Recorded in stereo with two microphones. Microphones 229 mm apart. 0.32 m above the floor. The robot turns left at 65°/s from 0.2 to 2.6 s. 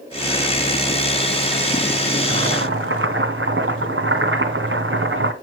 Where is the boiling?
65° right (ahead or behind), 2.5 m; by 5.3 s 70° right (ahead or behind), 2.5 m.